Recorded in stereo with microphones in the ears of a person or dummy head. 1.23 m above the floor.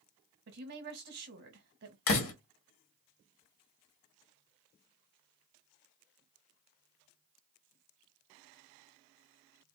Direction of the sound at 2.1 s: 55° left (ahead or behind).